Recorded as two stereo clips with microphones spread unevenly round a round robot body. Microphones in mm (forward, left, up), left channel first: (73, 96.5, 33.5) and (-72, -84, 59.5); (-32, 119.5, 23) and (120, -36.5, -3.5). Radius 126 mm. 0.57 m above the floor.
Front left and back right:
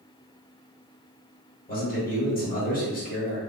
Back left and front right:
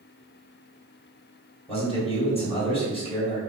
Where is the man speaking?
75° left, 1.4 m.